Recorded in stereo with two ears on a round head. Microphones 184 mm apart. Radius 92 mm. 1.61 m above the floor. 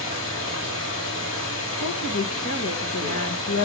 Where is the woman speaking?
85° left, 2 m.